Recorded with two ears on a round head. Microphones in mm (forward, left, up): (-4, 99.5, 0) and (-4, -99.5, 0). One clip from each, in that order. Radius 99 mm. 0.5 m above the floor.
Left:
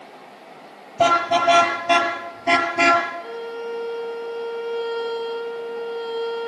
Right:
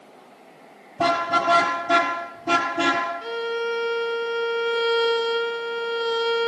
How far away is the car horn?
About 8 m.